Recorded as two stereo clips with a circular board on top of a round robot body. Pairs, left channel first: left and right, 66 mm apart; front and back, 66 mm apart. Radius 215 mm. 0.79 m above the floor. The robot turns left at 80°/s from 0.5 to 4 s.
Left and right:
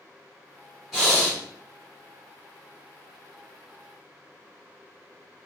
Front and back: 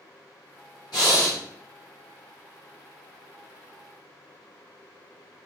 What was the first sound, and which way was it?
Breathing, 5° right.